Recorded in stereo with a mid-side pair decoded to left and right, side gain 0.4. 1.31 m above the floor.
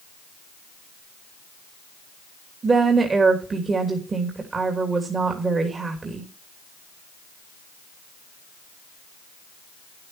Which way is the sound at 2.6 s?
40° right.